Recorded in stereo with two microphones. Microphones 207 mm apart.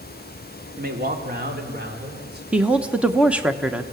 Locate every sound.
0.8 s a man speaking: 45° right (ahead or behind), 2.5 m; by 2.4 s 50° right (ahead or behind), 4.5 m
2.5 s a woman speaking: 5° right (ahead or behind), 1.3 m